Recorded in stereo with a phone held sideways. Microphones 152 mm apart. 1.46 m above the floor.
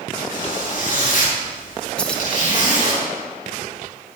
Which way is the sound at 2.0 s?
5° left (ahead or behind).